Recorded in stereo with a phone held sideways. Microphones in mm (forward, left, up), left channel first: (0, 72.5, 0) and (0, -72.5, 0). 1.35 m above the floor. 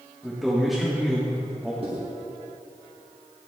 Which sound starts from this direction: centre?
A man speaking, at 0.2 s.